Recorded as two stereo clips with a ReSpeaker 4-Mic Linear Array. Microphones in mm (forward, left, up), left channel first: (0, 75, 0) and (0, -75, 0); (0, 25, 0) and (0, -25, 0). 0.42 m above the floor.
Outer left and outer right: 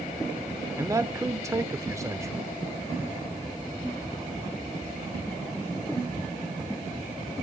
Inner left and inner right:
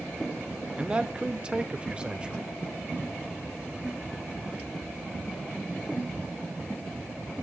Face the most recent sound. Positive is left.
turn(degrees=-20)  # may be behind; listen again after turning